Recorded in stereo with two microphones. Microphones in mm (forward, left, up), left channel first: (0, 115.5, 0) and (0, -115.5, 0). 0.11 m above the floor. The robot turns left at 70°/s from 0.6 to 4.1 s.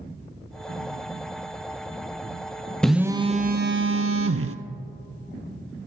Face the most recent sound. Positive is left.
turn(degrees=-85)